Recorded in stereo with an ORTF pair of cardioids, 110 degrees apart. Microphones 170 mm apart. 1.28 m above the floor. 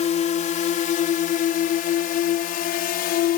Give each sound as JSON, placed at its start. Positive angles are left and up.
{"t": 0.0, "sound": "a drone", "azimuth_deg": 45}